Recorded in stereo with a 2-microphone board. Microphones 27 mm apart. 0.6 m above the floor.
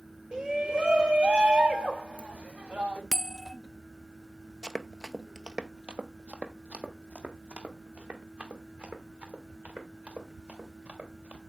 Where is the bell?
20° left (ahead or behind), 0.6 m.